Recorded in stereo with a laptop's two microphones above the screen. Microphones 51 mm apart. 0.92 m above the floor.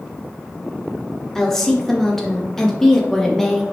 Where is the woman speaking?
10° left (ahead or behind), 0.8 m.